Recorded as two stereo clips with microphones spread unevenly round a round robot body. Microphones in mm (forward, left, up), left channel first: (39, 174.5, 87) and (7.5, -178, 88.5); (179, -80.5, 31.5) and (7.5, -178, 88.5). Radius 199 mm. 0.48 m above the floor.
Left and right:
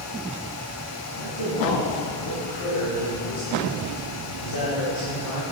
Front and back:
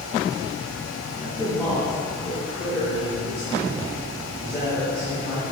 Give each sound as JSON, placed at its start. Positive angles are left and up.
{"t": 1.1, "sound": "a man speaking", "azimuth_deg": 115, "distance_m": 2.5}